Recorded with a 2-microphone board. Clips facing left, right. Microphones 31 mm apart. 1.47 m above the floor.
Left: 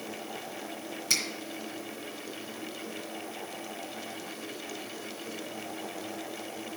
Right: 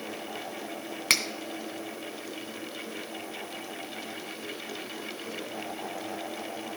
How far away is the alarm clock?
I don't hear an alarm clock.